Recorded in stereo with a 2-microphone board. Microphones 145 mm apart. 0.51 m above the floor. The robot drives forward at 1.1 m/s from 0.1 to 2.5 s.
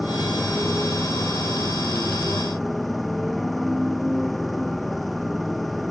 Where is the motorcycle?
Centre (ahead or behind).